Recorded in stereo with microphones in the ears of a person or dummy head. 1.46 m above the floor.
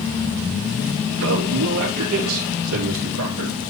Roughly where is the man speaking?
Right.